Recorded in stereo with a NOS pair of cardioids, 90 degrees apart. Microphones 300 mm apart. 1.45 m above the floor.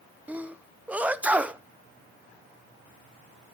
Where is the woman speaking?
No woman speaking in this recording.